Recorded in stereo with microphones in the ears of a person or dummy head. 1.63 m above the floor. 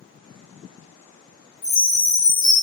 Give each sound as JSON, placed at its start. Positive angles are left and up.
{"t": 1.6, "sound": "a chime", "side_deg": 25, "distance_m": 0.5}